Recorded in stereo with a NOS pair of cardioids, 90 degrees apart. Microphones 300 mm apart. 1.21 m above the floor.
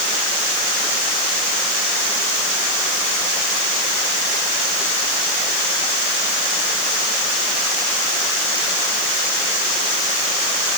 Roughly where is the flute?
I don't hear a flute.